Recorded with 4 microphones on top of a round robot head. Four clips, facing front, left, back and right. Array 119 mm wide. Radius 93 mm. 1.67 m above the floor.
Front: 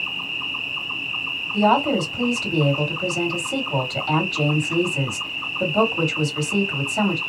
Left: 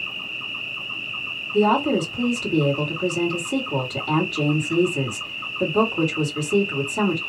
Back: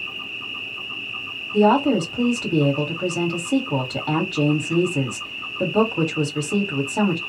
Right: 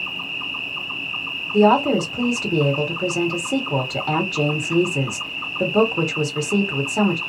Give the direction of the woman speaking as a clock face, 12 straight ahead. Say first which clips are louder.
Right 3 dB, back 2 dB; 4 o'clock.